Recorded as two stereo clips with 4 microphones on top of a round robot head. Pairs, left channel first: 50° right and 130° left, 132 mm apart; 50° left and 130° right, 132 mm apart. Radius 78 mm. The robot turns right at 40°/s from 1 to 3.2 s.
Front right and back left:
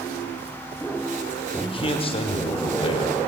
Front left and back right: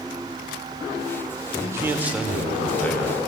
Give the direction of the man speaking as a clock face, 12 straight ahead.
2 o'clock.